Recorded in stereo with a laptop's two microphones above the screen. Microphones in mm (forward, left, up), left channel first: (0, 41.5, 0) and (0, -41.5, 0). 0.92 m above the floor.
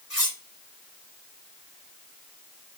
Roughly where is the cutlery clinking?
Centre.